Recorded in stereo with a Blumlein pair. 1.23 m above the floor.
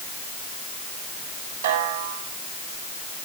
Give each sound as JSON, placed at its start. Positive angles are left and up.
{"t": 1.6, "sound": "a snare drum", "azimuth_deg": -65, "distance_m": 6.5}